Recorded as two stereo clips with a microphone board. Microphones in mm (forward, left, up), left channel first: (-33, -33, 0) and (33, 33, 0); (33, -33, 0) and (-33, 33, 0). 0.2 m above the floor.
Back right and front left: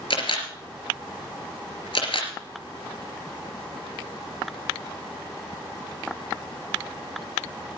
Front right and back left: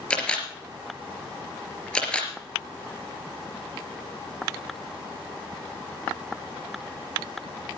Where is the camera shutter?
125° right, 3 m.